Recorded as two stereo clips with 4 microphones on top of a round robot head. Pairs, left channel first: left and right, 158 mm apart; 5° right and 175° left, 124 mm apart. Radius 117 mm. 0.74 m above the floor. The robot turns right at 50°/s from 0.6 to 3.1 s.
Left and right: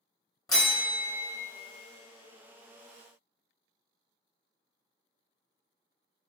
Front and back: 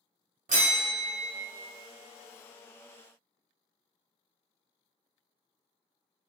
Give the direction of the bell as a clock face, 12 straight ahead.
7 o'clock.